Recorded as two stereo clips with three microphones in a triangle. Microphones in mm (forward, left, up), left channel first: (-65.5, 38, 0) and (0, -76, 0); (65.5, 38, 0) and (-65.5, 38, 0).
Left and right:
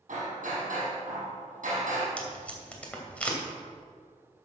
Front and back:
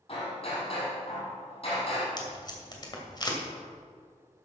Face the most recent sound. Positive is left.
turn(degrees=40)